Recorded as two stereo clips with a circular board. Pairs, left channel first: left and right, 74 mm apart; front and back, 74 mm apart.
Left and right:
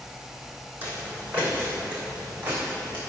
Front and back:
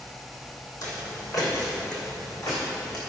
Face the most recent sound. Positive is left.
turn(degrees=-25)